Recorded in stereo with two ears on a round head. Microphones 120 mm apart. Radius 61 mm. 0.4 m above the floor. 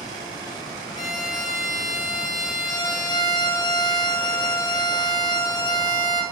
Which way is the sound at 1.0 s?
30° left (ahead or behind).